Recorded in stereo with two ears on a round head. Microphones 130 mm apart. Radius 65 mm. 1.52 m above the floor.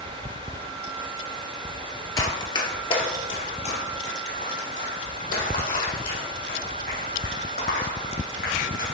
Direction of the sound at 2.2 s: 25° left (ahead or behind).